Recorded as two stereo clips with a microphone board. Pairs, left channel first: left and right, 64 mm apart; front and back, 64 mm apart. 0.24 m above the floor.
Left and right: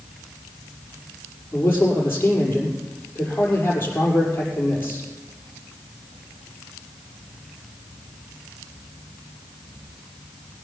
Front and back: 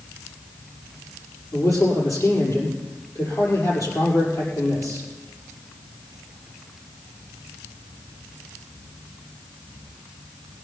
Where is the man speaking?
35° left, 6 m.